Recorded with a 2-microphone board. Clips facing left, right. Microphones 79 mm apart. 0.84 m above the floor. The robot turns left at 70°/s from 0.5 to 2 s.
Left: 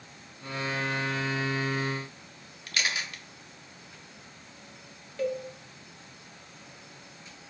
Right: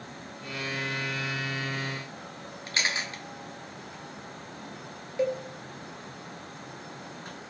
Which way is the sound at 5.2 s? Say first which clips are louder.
Right 3 dB; 20° right (ahead or behind).